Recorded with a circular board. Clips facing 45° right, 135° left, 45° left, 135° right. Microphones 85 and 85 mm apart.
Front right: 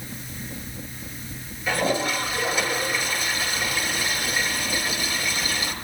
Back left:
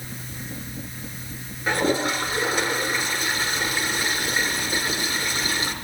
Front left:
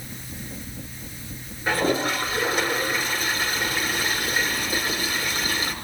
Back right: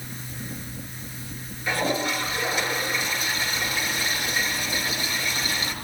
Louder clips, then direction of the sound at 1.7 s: Back left 1 dB, front left 3 dB; 95° left.